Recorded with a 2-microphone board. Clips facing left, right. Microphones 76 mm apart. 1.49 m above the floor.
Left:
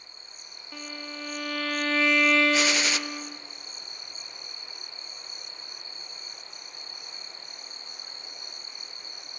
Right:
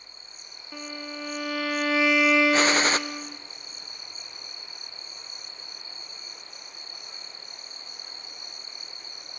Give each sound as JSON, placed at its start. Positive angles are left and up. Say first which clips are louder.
{"t": 0.7, "sound": "a violin", "louder": "right 3 dB", "side_deg": -5, "distance_m": 0.6}
{"t": 2.5, "sound": "a gunshot", "louder": "right 4 dB", "side_deg": -45, "distance_m": 0.6}